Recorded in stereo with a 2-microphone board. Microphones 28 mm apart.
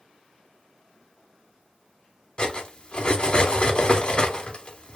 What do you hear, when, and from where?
2.4 s cutlery clinking: 35° left (ahead or behind), 0.6 m